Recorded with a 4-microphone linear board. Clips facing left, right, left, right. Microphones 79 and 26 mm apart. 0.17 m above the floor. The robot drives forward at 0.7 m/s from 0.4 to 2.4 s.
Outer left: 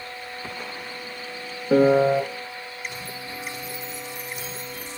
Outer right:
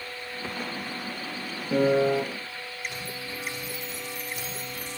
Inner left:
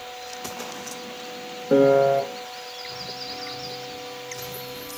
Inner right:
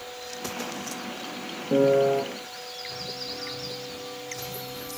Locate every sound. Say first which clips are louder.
1.7 s a piano: outer left 5 dB, inner left 4 dB; 50° left (ahead or behind), 0.7 m; by 2.2 s 40° left (ahead or behind), 0.9 m